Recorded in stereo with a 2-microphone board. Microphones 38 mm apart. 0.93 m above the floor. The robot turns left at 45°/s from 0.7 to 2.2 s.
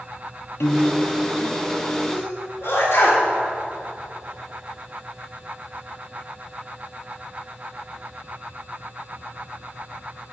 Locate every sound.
0.6 s a piano: 75° left (ahead or behind), 0.6 m; by 1.1 s 65° left (ahead or behind), 0.6 m
2.1 s a sneeze: 75° left (ahead or behind), 3 m